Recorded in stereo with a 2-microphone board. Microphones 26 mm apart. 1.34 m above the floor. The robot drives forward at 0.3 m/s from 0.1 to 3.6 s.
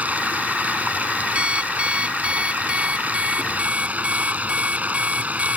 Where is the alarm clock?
50° right (ahead or behind); by 5.6 s 45° right (ahead or behind).